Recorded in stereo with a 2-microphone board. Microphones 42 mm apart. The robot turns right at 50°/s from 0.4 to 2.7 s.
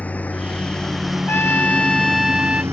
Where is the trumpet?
135° left; by 2.6 s 160° right.